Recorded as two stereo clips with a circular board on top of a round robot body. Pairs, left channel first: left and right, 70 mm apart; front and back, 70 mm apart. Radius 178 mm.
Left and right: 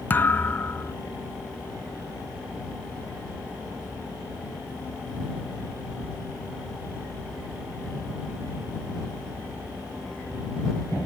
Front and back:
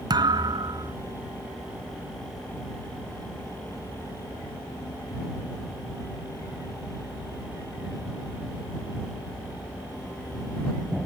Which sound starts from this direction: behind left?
A thud, at 0.1 s.